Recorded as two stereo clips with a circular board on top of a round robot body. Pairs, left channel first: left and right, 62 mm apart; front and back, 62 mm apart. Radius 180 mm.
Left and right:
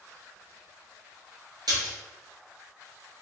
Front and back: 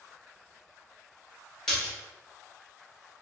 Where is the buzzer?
I don't hear a buzzer.